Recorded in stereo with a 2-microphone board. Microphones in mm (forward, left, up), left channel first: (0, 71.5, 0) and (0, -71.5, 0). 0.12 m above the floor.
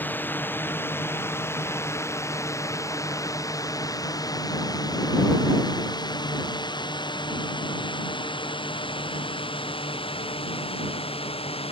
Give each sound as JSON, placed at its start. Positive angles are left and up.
{"t": 0.0, "sound": "a drone", "side_deg": 15}